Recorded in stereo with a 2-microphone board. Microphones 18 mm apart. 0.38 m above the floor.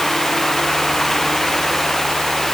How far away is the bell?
I don't hear a bell.